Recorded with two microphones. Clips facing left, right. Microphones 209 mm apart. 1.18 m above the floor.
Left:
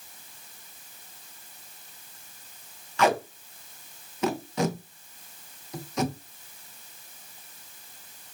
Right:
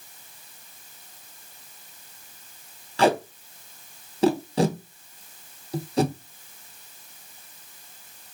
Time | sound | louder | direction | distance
3.0 | tape being pulled | right 3 dB | 30° right (ahead or behind) | 0.5 m